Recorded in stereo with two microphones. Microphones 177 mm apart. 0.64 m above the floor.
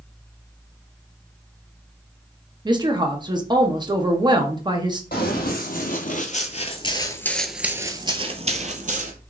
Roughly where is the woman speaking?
Right.